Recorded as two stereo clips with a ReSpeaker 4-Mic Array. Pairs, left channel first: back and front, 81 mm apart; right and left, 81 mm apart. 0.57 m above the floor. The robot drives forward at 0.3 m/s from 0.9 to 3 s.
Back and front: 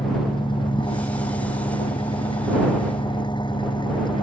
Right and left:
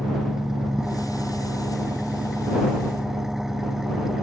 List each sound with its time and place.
0.0 s an engine running: 175° left